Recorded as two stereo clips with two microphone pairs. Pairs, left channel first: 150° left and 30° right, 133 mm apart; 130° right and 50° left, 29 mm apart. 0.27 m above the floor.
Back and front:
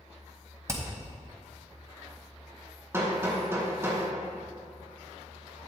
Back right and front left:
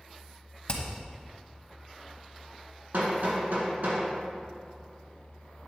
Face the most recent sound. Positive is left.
turn(degrees=40)